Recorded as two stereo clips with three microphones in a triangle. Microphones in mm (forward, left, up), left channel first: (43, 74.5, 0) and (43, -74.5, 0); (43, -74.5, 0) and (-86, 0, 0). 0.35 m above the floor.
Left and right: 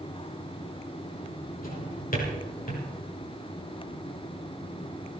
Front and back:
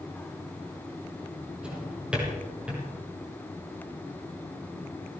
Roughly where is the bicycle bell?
No bicycle bell in this recording.